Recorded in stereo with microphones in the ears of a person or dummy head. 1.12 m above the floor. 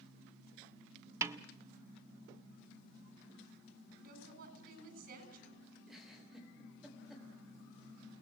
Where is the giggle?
5° right (ahead or behind), 3 m.